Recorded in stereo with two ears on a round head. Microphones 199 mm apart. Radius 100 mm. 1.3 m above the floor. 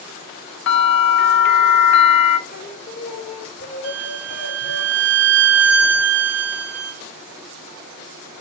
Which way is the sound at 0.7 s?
55° left (ahead or behind).